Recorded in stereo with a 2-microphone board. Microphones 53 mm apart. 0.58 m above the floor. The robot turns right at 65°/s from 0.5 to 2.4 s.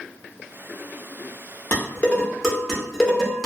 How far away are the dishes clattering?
About 0.9 m.